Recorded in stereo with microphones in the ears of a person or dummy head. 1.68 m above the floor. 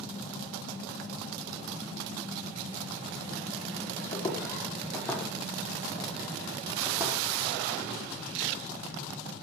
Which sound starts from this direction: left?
Footsteps, at 4.1 s.